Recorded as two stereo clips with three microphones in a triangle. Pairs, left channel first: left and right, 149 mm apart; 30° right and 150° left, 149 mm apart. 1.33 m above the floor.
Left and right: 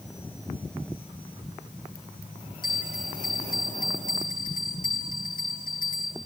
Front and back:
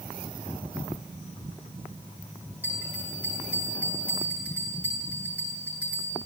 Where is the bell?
70° left, 8 m.